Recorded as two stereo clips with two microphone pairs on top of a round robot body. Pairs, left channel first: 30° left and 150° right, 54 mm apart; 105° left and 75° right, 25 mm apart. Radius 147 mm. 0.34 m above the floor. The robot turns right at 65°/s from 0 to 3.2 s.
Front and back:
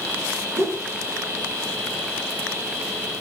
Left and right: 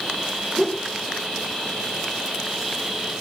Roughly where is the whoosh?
Behind.